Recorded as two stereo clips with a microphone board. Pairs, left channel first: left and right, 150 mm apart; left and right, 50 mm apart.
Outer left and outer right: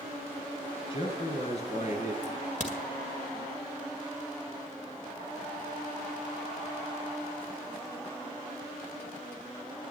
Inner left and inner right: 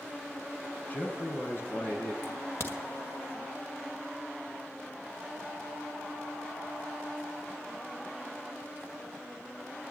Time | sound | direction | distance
0.9 | a man speaking | 35° left (ahead or behind) | 3.5 m
2.2 | a crack | 55° left (ahead or behind) | 2 m